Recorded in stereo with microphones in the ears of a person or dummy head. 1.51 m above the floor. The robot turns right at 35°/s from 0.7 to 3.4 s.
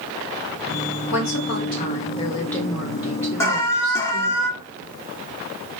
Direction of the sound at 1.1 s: 120° left.